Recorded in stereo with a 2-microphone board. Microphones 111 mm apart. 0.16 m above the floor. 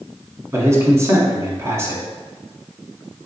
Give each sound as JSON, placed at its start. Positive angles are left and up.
{"t": 0.5, "sound": "a man speaking", "side_deg": -25, "distance_m": 1.2}